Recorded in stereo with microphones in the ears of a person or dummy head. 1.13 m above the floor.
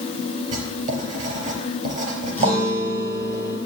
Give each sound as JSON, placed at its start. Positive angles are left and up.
{"t": 0.5, "sound": "writing", "side_deg": -35, "distance_m": 4.0}
{"t": 2.4, "sound": "a guitar", "side_deg": 15, "distance_m": 6.5}